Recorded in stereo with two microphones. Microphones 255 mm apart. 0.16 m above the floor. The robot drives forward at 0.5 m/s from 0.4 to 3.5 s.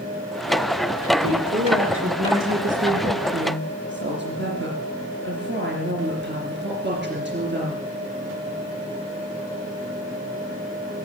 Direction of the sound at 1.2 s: 55° right (ahead or behind).